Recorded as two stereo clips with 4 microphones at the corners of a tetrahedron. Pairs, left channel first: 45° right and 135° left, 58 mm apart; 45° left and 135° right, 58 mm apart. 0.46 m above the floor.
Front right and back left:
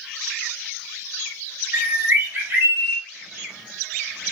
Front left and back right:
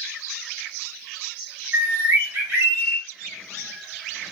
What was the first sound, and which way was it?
A bird, 175° left.